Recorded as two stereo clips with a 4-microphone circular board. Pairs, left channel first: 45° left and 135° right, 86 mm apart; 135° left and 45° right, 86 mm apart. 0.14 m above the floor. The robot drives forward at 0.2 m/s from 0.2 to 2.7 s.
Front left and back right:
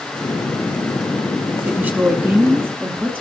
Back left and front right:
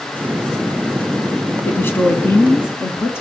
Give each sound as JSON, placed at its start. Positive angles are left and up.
{"t": 1.6, "sound": "a woman speaking", "azimuth_deg": 175, "distance_m": 1.2}